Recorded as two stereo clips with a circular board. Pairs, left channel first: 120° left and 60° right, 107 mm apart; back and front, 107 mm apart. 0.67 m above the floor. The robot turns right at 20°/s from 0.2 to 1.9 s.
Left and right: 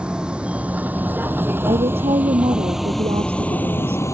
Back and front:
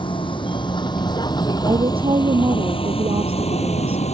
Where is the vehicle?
140° right; by 4.1 s straight behind.